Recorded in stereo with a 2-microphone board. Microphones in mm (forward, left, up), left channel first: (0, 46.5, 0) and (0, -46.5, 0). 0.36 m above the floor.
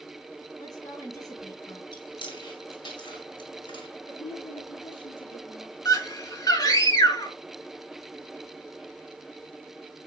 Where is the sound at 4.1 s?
70° left (ahead or behind), 4.5 m.